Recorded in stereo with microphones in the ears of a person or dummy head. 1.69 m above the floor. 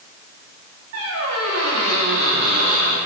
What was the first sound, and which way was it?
A squeak, 75° right (ahead or behind).